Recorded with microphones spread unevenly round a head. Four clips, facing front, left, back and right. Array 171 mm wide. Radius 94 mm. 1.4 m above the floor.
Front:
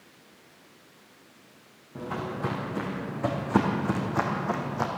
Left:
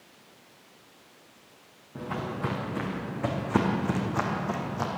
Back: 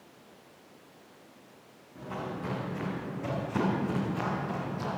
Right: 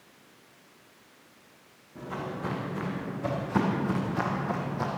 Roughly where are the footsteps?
Ahead left.